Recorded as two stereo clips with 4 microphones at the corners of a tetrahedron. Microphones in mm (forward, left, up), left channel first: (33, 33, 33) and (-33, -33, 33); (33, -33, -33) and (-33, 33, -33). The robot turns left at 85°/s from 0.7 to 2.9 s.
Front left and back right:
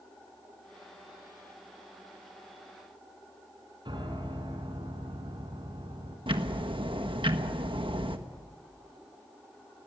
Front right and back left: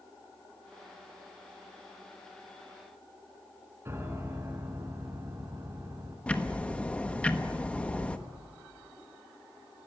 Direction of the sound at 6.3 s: 120° right.